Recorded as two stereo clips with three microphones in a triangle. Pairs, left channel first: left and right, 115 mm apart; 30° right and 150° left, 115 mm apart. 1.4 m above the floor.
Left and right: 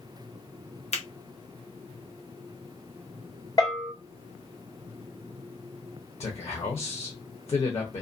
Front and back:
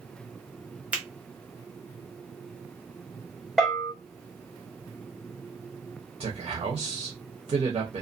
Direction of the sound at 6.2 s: 120° left.